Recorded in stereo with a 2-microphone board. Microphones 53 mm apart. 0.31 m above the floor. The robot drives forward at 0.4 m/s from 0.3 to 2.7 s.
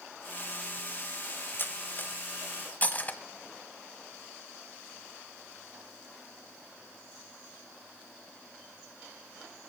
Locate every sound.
1.6 s cutlery clinking: 40° left (ahead or behind), 1.1 m; by 3.2 s 30° left (ahead or behind), 1.3 m